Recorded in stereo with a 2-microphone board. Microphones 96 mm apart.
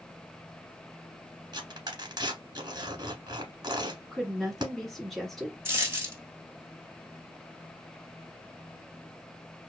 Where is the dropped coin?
25° right (ahead or behind), 1.2 m.